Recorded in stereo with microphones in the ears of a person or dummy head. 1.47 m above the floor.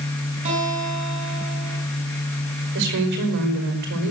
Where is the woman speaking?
55° right (ahead or behind), 5 m.